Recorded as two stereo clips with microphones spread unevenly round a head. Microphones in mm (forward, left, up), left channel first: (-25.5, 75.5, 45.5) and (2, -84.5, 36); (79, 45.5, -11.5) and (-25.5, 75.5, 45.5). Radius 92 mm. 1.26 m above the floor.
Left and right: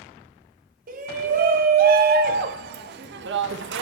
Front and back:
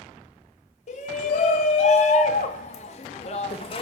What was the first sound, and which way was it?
A shout, 40° right.